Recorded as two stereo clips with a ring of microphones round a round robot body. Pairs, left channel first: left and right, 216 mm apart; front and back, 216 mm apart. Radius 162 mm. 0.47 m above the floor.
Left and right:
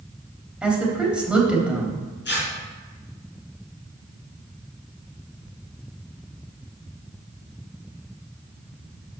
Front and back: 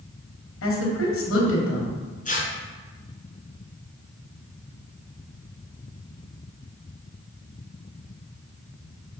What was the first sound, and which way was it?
A woman speaking, 5° right.